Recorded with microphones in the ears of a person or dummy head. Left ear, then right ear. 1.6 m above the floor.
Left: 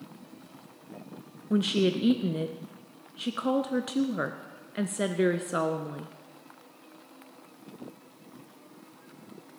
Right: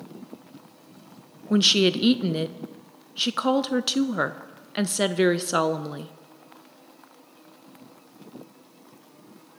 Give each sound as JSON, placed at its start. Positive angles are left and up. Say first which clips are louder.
{"t": 1.5, "sound": "a woman speaking", "louder": "right 7 dB", "side_deg": -35, "distance_m": 0.5}